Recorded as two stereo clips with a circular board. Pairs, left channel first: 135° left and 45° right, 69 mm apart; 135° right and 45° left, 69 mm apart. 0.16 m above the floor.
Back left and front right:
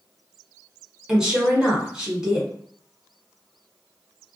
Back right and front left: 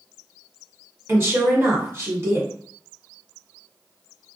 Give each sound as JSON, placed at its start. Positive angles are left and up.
{"t": 1.1, "sound": "a woman speaking", "azimuth_deg": 30, "distance_m": 1.3}